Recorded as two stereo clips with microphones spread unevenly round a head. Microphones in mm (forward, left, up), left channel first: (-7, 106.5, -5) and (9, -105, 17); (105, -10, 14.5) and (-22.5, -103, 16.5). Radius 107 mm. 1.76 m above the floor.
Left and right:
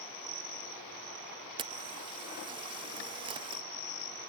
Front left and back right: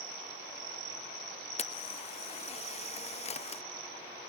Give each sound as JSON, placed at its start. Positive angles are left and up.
{"t": 1.6, "sound": "a camera shutter", "azimuth_deg": -15, "distance_m": 0.7}